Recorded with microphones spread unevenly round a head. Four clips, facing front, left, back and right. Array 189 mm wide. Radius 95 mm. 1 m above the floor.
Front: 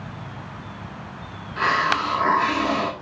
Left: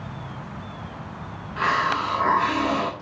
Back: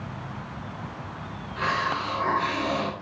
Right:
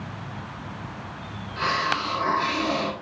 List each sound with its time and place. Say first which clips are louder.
1.6 s a hiss: left 3 dB, front 5 dB; 20° left, 1.6 m